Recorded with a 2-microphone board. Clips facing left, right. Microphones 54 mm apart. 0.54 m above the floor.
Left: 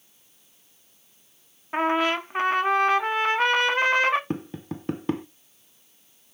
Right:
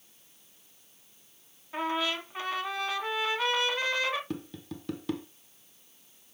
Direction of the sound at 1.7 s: 45° left (ahead or behind).